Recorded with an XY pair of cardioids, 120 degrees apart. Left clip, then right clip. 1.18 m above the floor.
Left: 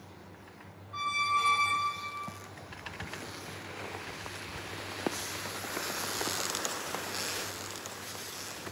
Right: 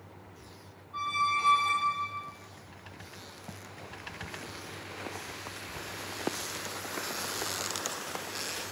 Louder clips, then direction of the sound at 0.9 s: Even; 45° left.